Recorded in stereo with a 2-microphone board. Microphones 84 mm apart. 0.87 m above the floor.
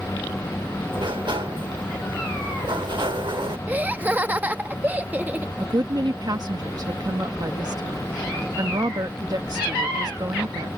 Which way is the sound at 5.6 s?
50° right (ahead or behind).